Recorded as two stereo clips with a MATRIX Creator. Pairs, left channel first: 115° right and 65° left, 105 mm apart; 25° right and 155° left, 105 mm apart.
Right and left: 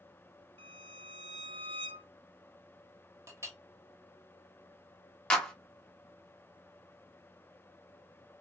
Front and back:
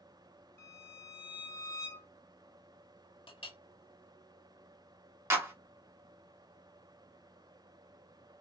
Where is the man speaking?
No man speaking in this recording.